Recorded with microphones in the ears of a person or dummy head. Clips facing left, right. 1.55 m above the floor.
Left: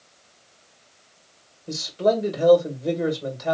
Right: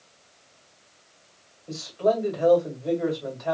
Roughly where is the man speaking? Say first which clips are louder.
Left 2 dB; left.